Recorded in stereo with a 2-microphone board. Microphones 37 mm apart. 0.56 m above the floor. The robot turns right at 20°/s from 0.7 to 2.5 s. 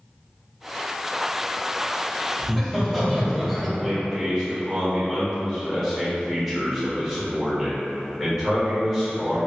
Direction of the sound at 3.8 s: Centre (ahead or behind).